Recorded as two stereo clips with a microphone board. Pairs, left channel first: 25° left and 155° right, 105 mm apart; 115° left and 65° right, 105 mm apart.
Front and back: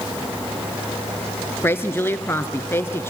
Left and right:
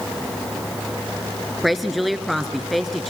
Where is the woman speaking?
20° left, 1.1 m.